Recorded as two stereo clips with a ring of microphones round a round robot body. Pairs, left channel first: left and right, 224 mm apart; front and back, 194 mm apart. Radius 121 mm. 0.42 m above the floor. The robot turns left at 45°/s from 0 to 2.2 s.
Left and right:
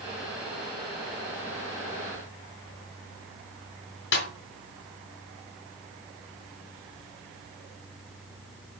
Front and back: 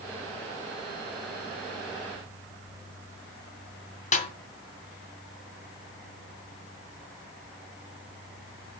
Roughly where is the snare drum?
Ahead left.